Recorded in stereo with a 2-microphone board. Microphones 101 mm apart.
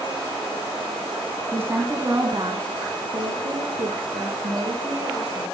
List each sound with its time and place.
1.5 s a woman speaking: 20° right (ahead or behind), 1.1 m; by 5.4 s 65° right (ahead or behind), 4 m